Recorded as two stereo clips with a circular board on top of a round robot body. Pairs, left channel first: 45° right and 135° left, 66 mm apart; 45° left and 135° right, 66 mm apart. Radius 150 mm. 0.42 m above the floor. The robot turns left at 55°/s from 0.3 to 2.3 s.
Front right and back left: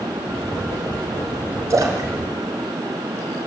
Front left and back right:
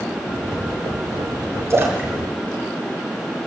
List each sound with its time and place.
1.7 s a splash: 175° left, 5 m; by 3.5 s 145° left, 5 m